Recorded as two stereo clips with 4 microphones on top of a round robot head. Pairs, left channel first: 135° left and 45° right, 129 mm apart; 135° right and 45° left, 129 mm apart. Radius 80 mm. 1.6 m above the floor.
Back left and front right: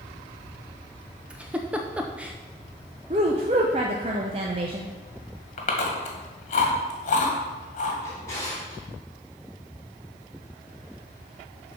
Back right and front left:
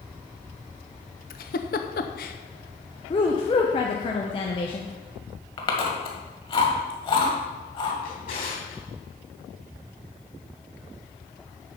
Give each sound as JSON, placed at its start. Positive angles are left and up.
{"t": 1.3, "sound": "a giggle", "azimuth_deg": -125, "distance_m": 0.6}
{"t": 3.1, "sound": "a woman speaking", "azimuth_deg": -90, "distance_m": 0.7}
{"t": 5.6, "sound": "chewing", "azimuth_deg": 175, "distance_m": 1.8}
{"t": 8.0, "sound": "a drawer", "azimuth_deg": -155, "distance_m": 3.5}